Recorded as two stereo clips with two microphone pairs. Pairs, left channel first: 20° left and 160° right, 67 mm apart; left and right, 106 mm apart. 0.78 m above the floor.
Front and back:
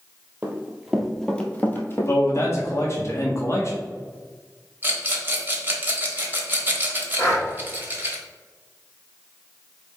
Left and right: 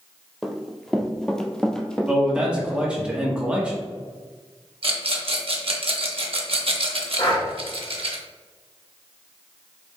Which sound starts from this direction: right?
A rattle, at 4.8 s.